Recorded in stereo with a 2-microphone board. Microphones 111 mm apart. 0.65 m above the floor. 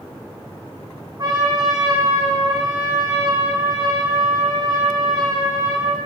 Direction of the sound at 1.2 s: 40° right (ahead or behind).